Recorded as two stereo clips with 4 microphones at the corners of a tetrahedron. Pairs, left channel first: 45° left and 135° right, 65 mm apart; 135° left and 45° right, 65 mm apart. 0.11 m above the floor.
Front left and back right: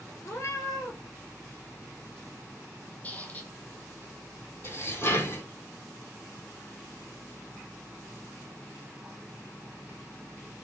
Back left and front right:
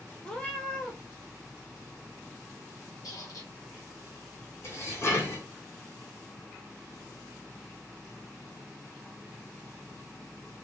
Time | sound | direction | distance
0.2 | a cat meowing | 65° left | 1.4 m
3.0 | a squeak | 110° left | 1.6 m
4.6 | dishes clattering | 90° left | 3 m